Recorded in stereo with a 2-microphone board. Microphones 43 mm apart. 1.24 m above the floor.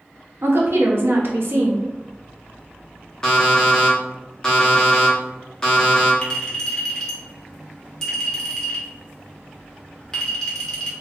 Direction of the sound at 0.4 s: 60° right (ahead or behind).